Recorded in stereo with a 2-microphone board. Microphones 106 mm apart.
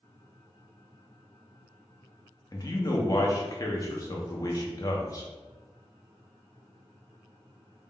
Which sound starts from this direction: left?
A man speaking, at 2.5 s.